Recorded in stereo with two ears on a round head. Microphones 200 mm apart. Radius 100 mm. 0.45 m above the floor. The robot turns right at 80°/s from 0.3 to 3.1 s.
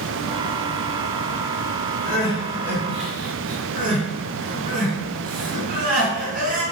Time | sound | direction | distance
2.0 | crying | 40° left (ahead or behind) | 3.5 m